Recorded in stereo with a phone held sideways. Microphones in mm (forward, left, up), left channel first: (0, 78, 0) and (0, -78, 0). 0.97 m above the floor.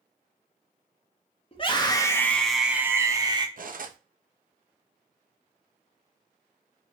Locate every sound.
1.5 s a scream: 35° left (ahead or behind), 0.8 m; by 3.5 s 30° right (ahead or behind), 0.9 m
3.6 s cutlery clinking: 65° right (ahead or behind), 0.6 m